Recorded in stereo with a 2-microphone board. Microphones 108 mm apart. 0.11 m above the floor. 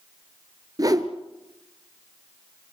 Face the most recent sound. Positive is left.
turn(degrees=-35)  # may be behind; listen again after turning